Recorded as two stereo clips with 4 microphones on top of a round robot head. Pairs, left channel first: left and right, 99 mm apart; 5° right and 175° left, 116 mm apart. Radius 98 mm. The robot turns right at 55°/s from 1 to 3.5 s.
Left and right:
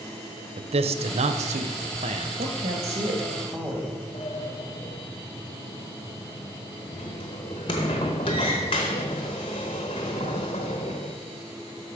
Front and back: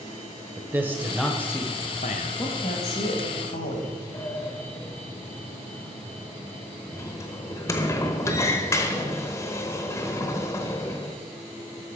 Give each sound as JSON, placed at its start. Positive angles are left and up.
{"t": 0.6, "sound": "a man speaking", "azimuth_deg": -110, "distance_m": 0.7}
{"t": 2.4, "sound": "a woman speaking", "azimuth_deg": -80, "distance_m": 1.7}
{"t": 4.1, "sound": "a sliding door", "azimuth_deg": 45, "distance_m": 0.7}